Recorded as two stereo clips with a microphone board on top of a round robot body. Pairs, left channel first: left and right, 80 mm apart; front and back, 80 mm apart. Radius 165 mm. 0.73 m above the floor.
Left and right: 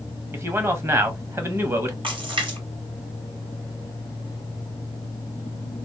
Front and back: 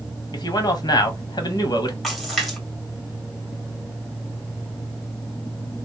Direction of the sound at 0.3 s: 35° right.